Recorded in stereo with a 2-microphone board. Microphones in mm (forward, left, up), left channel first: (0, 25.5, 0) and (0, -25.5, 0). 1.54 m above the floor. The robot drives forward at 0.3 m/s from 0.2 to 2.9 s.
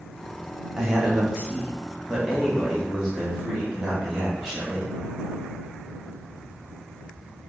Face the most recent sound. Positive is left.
turn(degrees=-10)  # may be behind; listen again after turning